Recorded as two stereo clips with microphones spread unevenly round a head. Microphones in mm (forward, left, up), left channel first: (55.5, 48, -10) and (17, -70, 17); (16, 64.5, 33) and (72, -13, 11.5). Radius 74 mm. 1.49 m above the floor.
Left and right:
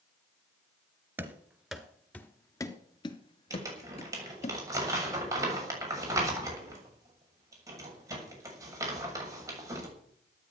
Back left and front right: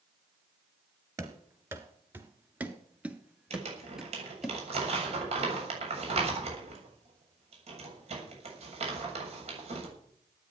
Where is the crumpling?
45° right, 7 m.